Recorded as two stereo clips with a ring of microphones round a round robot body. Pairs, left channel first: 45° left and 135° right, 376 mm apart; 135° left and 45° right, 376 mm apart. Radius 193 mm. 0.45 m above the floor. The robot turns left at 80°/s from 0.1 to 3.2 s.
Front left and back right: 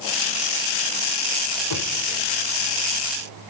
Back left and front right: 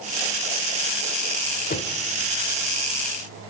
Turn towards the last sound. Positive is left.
turn(degrees=-45)